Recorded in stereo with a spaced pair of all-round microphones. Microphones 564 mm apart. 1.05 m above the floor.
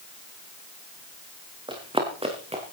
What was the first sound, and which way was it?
Running footsteps, 10° right (ahead or behind).